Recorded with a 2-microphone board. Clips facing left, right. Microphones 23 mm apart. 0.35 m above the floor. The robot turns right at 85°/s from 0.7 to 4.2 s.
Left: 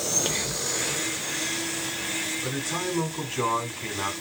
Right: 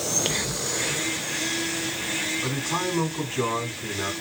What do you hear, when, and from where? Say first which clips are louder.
0.2 s whispering: right 1 dB; 20° right (ahead or behind), 0.8 m
2.4 s a man speaking: right 2 dB; 65° right, 2.5 m; by 4.1 s 80° left, 2.5 m